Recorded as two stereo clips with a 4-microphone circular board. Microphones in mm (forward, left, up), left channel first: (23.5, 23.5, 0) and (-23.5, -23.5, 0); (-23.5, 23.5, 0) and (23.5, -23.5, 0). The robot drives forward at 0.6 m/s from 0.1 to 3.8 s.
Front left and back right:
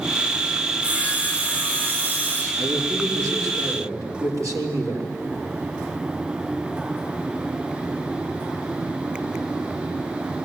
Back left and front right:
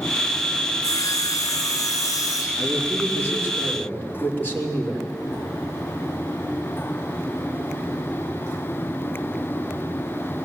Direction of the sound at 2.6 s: 165° right.